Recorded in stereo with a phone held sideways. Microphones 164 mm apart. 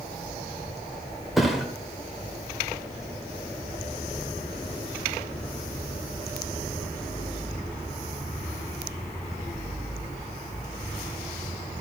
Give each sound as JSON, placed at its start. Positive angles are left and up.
{"t": 1.4, "sound": "a thud", "side_deg": 0, "distance_m": 1.4}